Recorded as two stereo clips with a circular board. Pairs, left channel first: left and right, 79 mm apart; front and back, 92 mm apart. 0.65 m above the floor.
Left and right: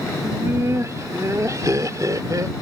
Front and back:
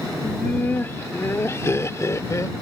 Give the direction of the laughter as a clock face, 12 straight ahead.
2 o'clock.